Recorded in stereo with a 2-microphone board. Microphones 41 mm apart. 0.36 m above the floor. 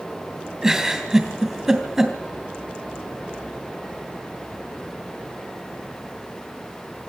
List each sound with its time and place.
0.6 s a giggle: 15° right (ahead or behind), 2.5 m